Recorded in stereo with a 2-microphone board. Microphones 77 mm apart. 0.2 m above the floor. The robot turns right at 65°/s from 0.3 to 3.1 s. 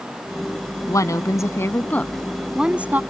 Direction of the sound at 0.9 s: 75° left.